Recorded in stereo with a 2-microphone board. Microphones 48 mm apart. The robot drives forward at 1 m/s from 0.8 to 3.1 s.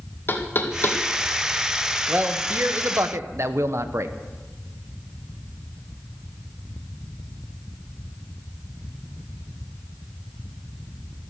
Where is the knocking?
45° left (ahead or behind), 2 m; by 1.0 s 50° left (ahead or behind), 1.9 m.